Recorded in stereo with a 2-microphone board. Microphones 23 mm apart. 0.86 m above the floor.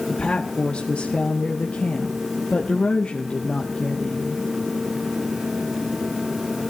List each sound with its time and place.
0.1 s a woman speaking: 45° left (ahead or behind), 1.7 m